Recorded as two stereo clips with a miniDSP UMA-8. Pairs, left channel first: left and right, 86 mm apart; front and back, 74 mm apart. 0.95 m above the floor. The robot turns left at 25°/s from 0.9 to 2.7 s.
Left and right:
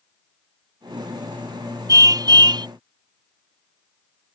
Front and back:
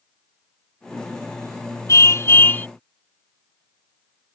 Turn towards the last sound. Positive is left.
turn(degrees=-65)